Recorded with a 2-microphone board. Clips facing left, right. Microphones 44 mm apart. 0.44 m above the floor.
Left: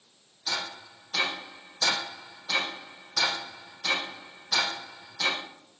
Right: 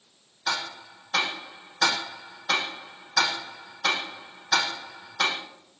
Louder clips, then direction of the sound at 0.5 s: Right 4 dB; 55° right (ahead or behind).